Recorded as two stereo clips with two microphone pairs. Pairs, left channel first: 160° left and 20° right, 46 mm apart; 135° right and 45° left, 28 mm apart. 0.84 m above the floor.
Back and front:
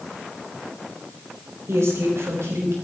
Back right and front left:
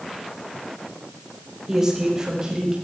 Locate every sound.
1.7 s a woman speaking: 25° right, 4.5 m; by 2.8 s 15° right, 5.5 m